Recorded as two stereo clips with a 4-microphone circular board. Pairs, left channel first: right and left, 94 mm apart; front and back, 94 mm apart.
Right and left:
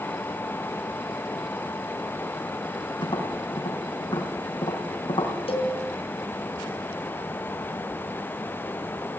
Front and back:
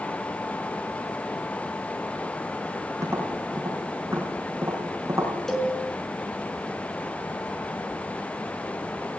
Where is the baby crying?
No baby crying in this recording.